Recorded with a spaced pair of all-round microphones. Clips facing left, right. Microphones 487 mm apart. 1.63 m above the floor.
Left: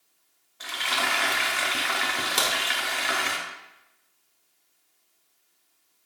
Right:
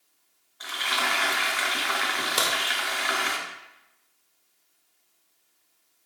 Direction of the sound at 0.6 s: 50° left (ahead or behind).